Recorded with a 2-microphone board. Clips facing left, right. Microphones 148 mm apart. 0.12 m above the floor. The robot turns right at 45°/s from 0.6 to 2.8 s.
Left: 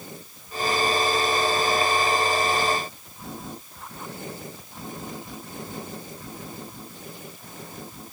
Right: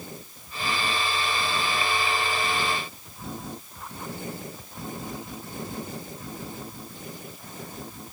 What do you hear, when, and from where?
Only background noise.